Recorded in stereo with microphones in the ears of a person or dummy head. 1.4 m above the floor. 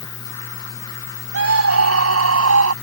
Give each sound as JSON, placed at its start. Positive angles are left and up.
{"t": 1.3, "sound": "a scream", "side_deg": -85}